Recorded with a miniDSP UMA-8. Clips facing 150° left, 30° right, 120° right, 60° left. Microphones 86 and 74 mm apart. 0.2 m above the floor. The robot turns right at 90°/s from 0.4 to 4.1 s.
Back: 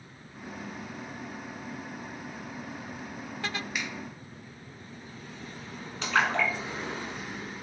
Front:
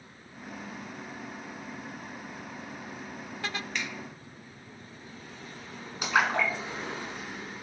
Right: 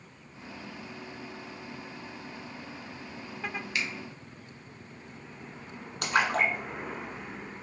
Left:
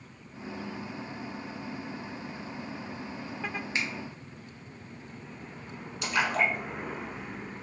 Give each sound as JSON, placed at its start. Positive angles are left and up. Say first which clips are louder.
{"t": 3.8, "sound": "a finger snap", "louder": "front 1 dB, left 1 dB", "azimuth_deg": 80, "distance_m": 0.9}
{"t": 6.0, "sound": "a splash", "louder": "even, right 1 dB", "azimuth_deg": -105, "distance_m": 0.8}